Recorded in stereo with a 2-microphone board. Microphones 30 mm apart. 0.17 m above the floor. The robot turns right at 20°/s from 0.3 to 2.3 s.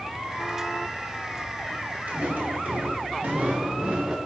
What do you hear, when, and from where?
2.1 s footsteps: 65° right (ahead or behind), 2 m; by 4.2 s 30° right (ahead or behind), 1.1 m